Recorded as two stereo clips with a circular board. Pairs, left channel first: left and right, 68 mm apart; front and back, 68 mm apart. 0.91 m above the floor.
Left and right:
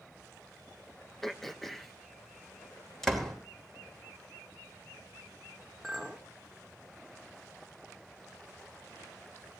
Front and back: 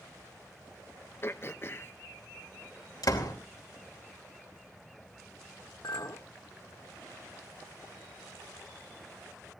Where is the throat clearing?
5° left, 0.7 m.